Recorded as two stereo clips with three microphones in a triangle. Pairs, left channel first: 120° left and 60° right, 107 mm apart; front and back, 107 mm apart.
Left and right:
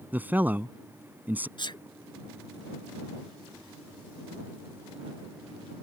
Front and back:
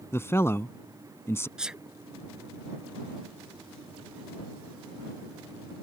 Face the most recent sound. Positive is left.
turn(degrees=100)